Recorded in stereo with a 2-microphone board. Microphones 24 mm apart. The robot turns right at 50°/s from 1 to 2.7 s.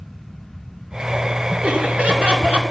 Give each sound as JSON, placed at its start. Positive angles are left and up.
{"t": 1.6, "sound": "laughter", "azimuth_deg": -105, "distance_m": 2.0}